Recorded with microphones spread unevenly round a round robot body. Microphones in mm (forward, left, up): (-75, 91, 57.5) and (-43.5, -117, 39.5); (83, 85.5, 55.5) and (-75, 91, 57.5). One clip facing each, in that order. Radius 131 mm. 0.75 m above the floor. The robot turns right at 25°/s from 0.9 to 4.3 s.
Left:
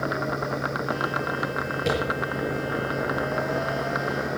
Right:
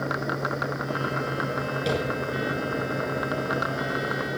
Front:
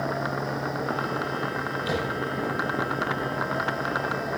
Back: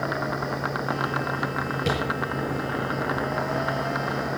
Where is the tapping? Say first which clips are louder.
Left 1 dB, back 2 dB; straight behind, 7 m; by 2.0 s 175° right, 7 m.